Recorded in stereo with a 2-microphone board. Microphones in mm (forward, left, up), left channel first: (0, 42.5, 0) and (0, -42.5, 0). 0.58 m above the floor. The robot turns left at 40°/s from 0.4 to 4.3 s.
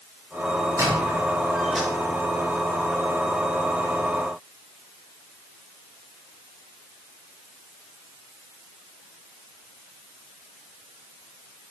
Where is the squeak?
40° right (ahead or behind), 4.5 m; by 1.9 s 5° left (ahead or behind), 4.5 m.